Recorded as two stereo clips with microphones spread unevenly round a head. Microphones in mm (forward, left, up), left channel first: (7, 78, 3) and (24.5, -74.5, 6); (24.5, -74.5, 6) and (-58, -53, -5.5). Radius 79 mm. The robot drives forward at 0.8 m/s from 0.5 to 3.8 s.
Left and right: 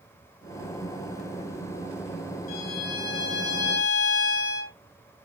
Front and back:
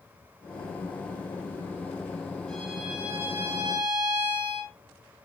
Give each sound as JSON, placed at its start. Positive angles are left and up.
{"t": 2.5, "sound": "a violin", "azimuth_deg": 65, "distance_m": 1.7}